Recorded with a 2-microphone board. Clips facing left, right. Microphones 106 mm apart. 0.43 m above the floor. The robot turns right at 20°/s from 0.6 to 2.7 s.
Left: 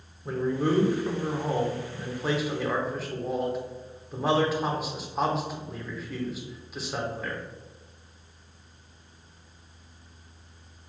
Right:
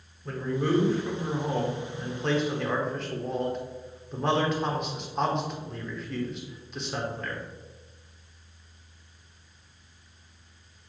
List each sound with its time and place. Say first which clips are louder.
0.2 s a man speaking: left 2 dB; 15° left (ahead or behind), 0.8 m; by 7.4 s 5° left (ahead or behind), 0.8 m